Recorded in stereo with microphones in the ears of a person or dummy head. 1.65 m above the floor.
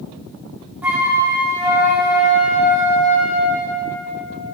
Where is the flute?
Centre (ahead or behind), 0.6 m.